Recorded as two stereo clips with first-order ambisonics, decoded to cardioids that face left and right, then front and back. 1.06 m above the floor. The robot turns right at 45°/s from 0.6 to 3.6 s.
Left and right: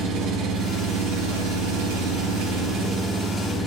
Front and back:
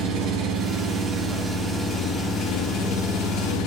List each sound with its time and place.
0.0 s an engine running: 135° right, 1.1 m; by 3.7 s straight ahead, 1.1 m